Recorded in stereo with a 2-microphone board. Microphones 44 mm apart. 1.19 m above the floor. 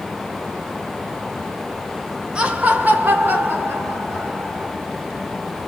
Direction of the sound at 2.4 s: 20° right (ahead or behind).